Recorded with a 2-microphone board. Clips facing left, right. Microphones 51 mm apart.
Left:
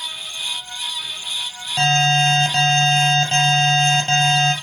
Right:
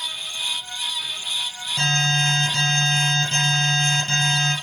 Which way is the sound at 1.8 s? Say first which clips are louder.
Left 5 dB; 55° left (ahead or behind).